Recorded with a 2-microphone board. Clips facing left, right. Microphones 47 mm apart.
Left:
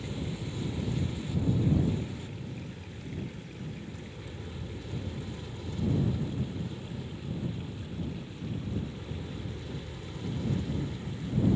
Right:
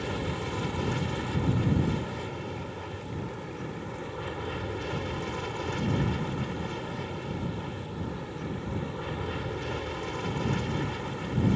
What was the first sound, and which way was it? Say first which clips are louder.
An aircraft: right 5 dB; 70° right (ahead or behind).